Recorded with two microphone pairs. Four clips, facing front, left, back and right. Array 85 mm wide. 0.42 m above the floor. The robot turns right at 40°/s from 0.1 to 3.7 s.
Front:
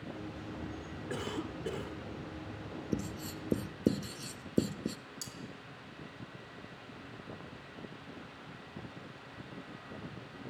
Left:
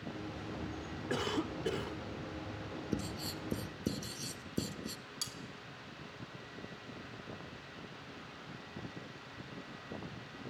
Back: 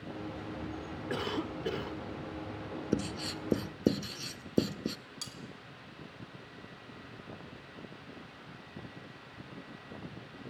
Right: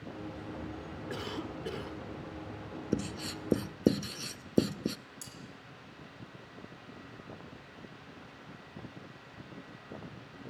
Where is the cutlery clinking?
125° left, 2.5 m.